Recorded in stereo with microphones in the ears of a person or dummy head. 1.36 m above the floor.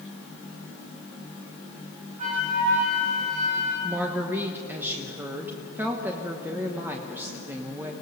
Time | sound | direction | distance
2.2 | a flute | 40° right (ahead or behind) | 9 m
3.8 | a woman speaking | 10° right (ahead or behind) | 1.3 m